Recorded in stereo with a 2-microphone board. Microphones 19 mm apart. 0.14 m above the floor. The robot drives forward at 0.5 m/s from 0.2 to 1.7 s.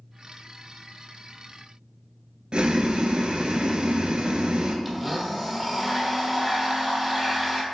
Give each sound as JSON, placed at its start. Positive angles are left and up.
{"t": 2.5, "sound": "boiling", "side_deg": -60, "distance_m": 0.5}
{"t": 4.8, "sound": "a blender", "side_deg": -5, "distance_m": 0.7}